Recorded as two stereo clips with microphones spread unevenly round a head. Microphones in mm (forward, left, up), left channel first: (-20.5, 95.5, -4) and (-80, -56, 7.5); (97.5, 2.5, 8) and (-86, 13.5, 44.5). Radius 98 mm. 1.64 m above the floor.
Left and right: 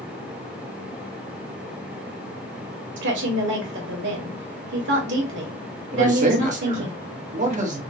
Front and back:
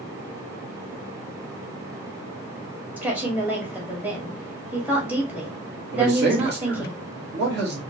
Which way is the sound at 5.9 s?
150° right.